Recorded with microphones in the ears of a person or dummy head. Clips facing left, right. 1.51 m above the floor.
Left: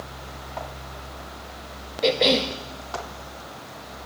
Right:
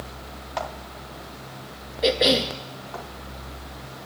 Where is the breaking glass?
No breaking glass in this recording.